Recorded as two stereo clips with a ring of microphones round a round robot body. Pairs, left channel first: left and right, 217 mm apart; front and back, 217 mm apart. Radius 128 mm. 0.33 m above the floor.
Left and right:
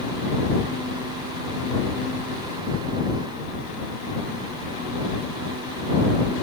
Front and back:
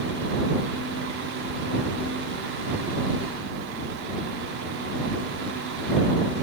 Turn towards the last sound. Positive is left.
No sound to turn to.